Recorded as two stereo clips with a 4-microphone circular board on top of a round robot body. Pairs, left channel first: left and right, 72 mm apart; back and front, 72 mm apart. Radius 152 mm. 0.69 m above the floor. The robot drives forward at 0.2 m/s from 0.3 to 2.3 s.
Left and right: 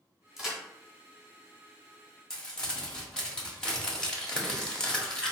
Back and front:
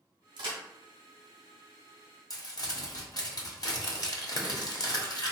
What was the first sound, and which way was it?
A crack, straight ahead.